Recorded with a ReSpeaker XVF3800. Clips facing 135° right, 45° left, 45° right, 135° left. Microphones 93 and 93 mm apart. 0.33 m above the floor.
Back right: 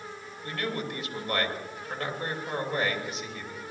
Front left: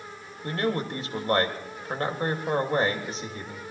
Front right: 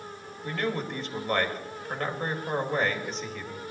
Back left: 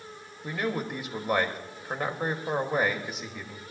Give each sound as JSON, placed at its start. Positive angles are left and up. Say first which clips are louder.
{"t": 0.4, "sound": "a man speaking", "louder": "front left 5 dB, even", "azimuth_deg": 65, "distance_m": 1.6}